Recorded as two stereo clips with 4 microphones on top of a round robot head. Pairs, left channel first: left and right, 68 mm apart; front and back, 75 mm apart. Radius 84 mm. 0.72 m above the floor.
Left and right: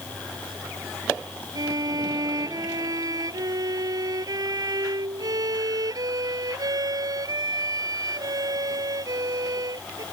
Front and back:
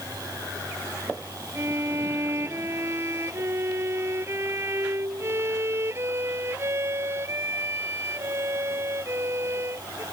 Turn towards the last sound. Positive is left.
turn(degrees=-120)